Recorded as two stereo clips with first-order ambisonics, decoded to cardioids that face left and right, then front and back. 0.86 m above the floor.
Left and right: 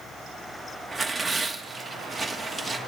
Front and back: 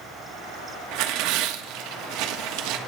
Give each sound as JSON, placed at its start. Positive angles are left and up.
{"t": 0.9, "sound": "tearing paper", "azimuth_deg": -175, "distance_m": 1.4}